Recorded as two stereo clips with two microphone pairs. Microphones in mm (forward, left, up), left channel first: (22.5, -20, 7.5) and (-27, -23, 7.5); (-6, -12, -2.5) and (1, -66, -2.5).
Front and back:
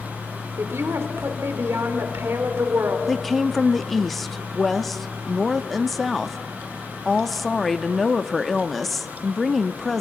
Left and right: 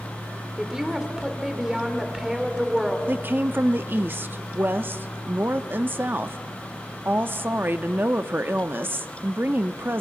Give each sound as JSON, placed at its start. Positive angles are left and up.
{"t": 0.6, "sound": "a woman speaking", "azimuth_deg": -160, "distance_m": 1.9}
{"t": 3.1, "sound": "a woman speaking", "azimuth_deg": -85, "distance_m": 0.7}